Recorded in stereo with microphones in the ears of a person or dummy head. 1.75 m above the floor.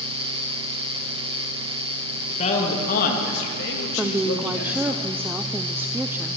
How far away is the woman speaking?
About 0.7 m.